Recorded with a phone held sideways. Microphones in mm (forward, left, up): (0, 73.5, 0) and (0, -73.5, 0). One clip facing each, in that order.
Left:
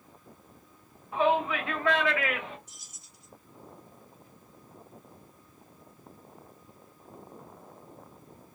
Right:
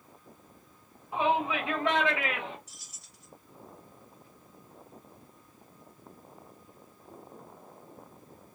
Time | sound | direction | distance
1.1 | a shout | 20° right (ahead or behind) | 2 m
2.7 | keys jangling | 85° right | 2 m